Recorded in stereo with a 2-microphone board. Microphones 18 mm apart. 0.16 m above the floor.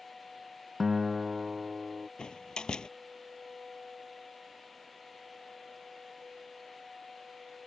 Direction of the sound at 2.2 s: 50° left (ahead or behind).